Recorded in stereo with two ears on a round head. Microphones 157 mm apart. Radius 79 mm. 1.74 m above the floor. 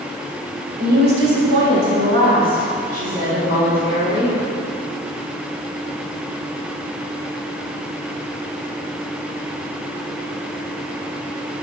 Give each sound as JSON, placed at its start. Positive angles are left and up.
{"t": 0.8, "sound": "a woman speaking", "side_deg": -50, "distance_m": 1.6}